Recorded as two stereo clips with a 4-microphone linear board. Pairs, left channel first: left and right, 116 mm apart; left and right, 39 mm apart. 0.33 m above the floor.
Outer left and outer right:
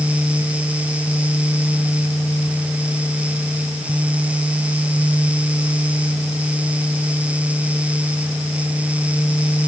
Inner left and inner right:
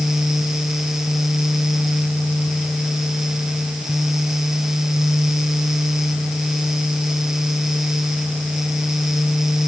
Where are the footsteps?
No footsteps in this recording.